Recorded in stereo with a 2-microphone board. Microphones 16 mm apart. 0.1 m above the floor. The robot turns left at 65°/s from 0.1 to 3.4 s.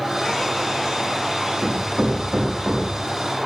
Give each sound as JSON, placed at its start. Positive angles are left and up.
{"t": 1.6, "sound": "hammering", "side_deg": -10, "distance_m": 5.5}